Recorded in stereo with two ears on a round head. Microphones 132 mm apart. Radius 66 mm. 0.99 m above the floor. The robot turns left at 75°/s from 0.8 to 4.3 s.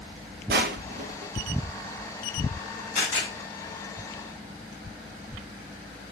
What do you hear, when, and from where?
0.5 s crushing: 75° right (ahead or behind), 0.6 m; by 1.3 s 35° right (ahead or behind), 0.6 m
3.0 s a camera shutter: 55° left (ahead or behind), 2.5 m; by 3.3 s 30° left (ahead or behind), 2.5 m